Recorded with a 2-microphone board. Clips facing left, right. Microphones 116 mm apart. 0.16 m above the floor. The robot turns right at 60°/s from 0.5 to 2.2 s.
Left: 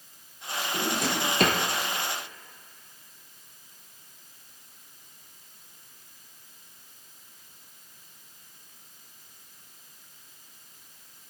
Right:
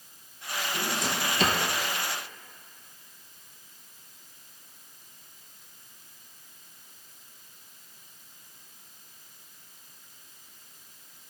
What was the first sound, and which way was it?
A drawer, 60° left (ahead or behind).